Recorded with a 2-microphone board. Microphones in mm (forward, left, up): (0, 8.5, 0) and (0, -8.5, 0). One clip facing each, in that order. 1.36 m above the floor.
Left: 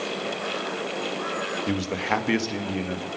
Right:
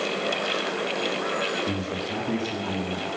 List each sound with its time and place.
1.7 s a man speaking: 40° left (ahead or behind), 0.8 m; by 3.1 s 35° left (ahead or behind), 1.1 m